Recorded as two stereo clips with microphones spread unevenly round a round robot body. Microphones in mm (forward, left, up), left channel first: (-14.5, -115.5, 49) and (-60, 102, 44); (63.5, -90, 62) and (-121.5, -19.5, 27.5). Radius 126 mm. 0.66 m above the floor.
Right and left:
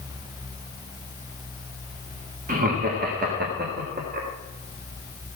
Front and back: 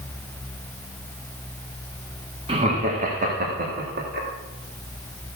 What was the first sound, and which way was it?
Laughter, 125° left.